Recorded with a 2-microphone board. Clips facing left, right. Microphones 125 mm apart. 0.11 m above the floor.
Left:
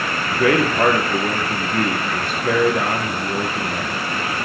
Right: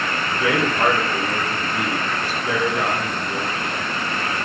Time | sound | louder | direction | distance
0.3 | a man speaking | left 5 dB | 60° left (ahead or behind) | 2.5 m